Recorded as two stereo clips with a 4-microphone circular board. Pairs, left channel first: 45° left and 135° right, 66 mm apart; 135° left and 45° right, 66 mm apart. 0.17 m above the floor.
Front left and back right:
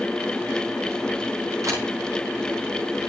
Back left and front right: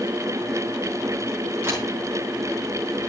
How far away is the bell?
No bell in this recording.